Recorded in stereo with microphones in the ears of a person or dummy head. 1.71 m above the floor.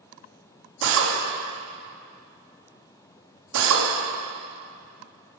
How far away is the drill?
About 3 m.